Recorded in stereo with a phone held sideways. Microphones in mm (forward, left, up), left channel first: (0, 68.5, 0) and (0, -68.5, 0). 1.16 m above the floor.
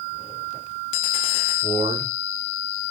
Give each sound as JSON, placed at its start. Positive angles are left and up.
{"t": 1.6, "sound": "a man speaking", "side_deg": -60, "distance_m": 4.0}